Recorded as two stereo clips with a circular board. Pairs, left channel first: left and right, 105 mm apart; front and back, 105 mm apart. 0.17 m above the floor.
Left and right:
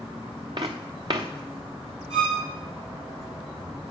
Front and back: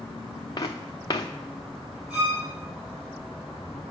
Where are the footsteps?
50° right, 1.0 m.